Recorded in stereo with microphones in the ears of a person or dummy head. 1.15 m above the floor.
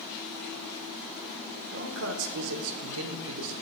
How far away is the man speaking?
About 0.6 m.